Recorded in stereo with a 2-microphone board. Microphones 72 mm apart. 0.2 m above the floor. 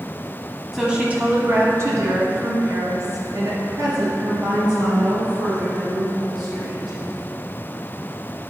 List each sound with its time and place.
0.7 s a woman speaking: 5° right (ahead or behind), 1.0 m; by 7.0 s 80° right, 5.5 m